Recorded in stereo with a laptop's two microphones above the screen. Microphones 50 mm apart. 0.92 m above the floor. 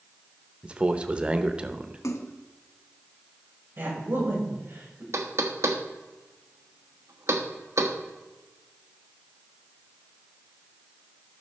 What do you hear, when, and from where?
0.6 s a man speaking: 20° right (ahead or behind), 0.7 m
2.0 s a splash: 70° left (ahead or behind), 0.8 m
3.8 s a woman speaking: 50° right (ahead or behind), 5.5 m
5.1 s knocking: 70° right (ahead or behind), 1.2 m